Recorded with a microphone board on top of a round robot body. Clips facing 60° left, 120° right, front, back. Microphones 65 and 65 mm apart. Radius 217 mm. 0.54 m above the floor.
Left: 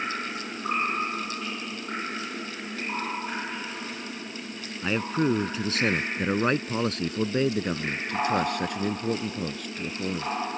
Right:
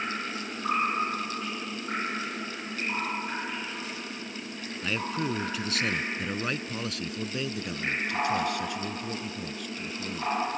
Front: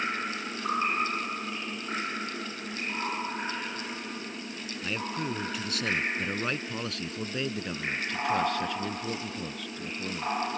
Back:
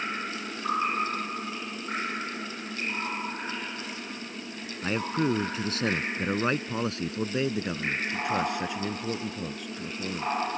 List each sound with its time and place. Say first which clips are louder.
4.8 s a man speaking: left 6 dB, back 6 dB; 125° left; by 10.3 s 100° left